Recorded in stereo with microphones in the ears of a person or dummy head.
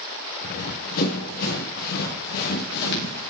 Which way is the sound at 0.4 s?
50° left (ahead or behind).